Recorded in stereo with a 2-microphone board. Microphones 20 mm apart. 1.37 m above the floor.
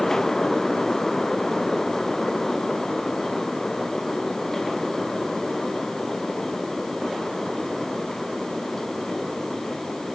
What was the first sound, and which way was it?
Only background noise.